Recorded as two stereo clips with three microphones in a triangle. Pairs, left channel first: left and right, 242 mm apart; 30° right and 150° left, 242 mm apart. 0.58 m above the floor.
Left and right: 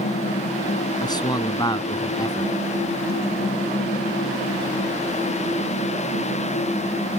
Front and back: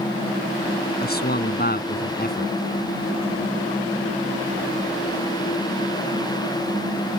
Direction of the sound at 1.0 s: 15° left.